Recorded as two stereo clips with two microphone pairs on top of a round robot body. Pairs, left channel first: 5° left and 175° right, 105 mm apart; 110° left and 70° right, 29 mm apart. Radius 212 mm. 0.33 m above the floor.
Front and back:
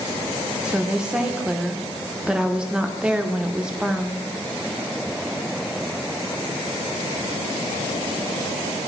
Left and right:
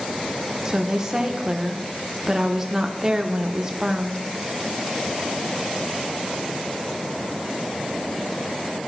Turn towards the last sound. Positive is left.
turn(degrees=-100)